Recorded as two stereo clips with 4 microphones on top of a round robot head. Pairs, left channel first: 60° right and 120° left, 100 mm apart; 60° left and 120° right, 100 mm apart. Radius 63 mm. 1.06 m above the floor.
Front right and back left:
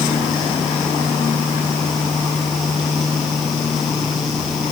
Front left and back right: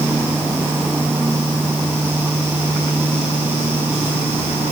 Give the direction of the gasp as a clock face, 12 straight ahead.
I don't hear a gasp.